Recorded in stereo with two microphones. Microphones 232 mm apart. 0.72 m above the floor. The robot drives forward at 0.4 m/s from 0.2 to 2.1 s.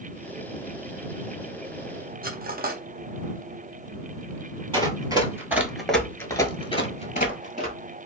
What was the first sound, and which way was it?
Cutlery clinking, 40° right (ahead or behind).